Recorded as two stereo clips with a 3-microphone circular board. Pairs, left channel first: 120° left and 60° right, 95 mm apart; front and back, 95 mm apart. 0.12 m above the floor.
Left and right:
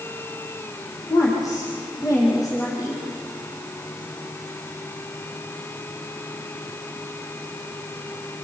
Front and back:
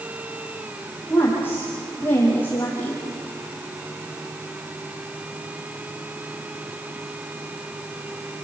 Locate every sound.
1.1 s a woman speaking: 65° left, 5.5 m